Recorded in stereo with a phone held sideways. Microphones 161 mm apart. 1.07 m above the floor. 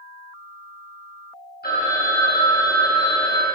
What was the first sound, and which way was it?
A phone ringing, 80° left.